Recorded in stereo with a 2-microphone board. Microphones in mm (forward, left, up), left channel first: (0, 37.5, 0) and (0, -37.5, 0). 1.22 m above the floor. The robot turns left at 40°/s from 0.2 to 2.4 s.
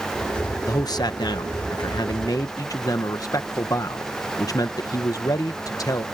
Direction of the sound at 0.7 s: 125° left.